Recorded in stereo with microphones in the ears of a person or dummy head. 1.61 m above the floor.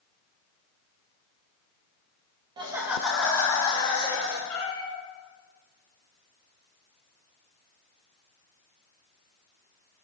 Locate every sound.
2.6 s laughter: 30° right (ahead or behind), 0.6 m; by 4.4 s 25° left (ahead or behind), 1.1 m
4.5 s a cat meowing: 40° left (ahead or behind), 3 m